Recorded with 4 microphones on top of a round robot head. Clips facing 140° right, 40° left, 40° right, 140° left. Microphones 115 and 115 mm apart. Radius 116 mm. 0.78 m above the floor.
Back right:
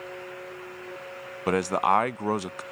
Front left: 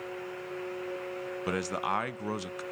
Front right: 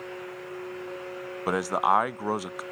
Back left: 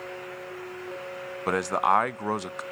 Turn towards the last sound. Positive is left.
turn(degrees=-120)